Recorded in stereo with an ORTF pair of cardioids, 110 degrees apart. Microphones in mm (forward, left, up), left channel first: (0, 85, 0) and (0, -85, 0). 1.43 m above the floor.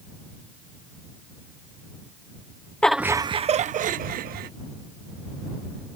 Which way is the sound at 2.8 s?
5° left.